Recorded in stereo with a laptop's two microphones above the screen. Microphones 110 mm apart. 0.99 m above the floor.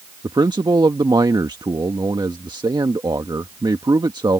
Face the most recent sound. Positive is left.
turn(degrees=-40)  # may be behind; listen again after turning